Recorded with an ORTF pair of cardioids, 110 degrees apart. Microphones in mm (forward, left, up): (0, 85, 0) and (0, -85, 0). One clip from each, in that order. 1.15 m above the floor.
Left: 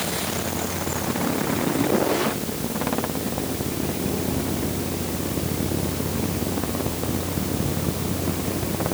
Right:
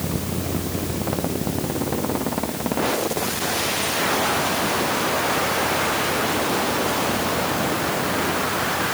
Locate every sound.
Only background noise.